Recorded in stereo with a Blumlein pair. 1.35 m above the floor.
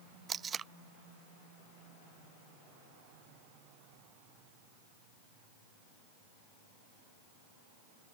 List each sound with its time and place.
0.3 s tape being pulled: 20° right